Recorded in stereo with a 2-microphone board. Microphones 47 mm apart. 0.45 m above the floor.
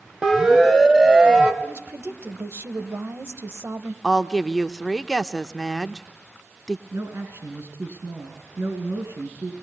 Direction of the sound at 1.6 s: 65° right (ahead or behind).